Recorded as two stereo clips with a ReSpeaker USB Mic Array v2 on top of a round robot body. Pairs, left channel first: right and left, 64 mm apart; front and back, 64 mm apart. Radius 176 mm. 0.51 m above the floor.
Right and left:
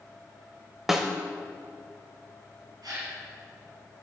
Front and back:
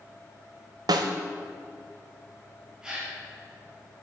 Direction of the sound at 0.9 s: 175° left.